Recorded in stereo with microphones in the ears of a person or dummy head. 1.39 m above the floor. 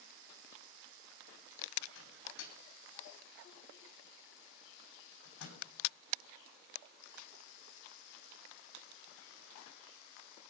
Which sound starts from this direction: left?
A microwave, at 1.9 s.